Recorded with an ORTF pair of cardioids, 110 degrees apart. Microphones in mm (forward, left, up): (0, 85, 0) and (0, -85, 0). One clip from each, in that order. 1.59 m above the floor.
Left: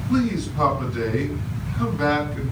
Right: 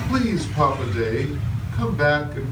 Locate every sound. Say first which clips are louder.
0.1 s a man speaking: even; 35° right, 2.5 m